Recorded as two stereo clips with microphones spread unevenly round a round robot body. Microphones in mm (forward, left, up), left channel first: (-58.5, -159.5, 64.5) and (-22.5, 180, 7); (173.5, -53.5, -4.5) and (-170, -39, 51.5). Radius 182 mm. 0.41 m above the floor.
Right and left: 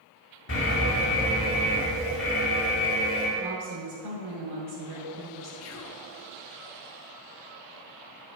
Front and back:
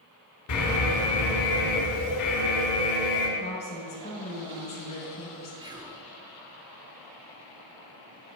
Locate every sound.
0.5 s an alarm: 35° right, 3 m
3.4 s a woman speaking: 65° left, 2.5 m
5.6 s whispering: 100° right, 0.9 m